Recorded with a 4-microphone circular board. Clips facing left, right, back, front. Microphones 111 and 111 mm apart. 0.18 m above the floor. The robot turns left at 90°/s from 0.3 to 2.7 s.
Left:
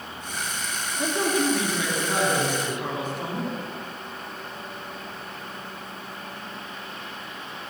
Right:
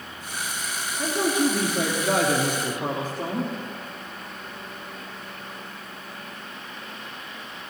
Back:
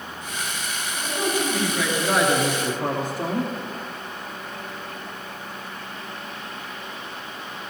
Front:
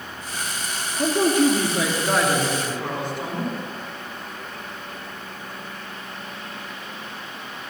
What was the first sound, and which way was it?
A man speaking, 15° left.